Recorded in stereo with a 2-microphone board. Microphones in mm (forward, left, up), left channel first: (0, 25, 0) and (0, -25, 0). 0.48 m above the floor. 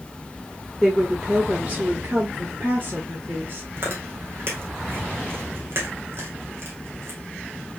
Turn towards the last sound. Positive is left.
turn(degrees=-55)  # may be behind; listen again after turning